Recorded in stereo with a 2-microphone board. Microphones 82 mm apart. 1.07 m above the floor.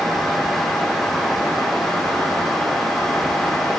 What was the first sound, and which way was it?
Only background noise.